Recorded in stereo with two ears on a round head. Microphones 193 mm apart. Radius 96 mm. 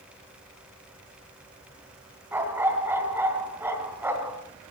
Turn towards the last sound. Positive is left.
turn(degrees=-10)  # may be behind; listen again after turning